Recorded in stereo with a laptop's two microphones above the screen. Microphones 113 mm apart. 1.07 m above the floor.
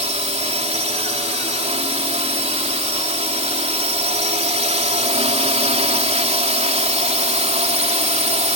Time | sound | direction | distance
0.0 | a drone | 75° right (ahead or behind) | ?